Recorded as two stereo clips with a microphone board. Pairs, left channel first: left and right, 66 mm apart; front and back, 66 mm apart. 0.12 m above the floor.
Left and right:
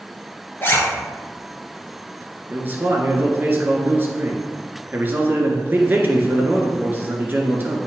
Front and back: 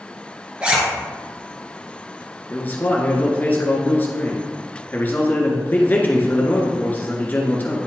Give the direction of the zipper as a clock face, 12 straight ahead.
8 o'clock.